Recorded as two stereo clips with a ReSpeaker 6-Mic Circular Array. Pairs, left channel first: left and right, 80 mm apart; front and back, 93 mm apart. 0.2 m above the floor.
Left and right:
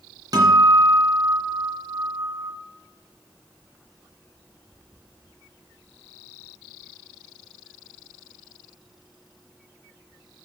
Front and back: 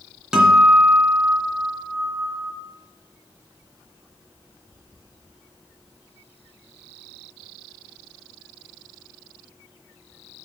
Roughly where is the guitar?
Right.